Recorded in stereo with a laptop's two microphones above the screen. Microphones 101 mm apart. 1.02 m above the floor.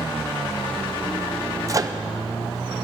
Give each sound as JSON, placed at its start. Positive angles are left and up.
{"t": 1.7, "sound": "a microwave", "side_deg": -35, "distance_m": 0.5}